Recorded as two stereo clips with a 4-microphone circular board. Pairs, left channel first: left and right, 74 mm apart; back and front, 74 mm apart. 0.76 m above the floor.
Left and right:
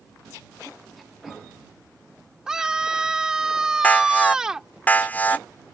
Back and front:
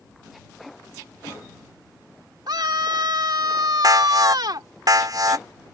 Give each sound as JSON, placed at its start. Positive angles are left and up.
{"t": 2.5, "sound": "a scream", "azimuth_deg": -10}
{"t": 3.8, "sound": "an alarm", "azimuth_deg": 25}